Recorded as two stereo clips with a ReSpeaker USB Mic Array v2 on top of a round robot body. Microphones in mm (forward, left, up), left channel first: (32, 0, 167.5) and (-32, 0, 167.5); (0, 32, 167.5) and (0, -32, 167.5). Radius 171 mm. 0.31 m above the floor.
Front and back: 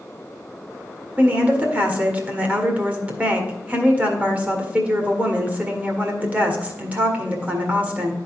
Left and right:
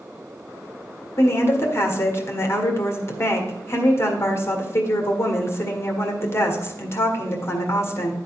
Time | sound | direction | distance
1.2 | a woman speaking | 120° left | 1.9 m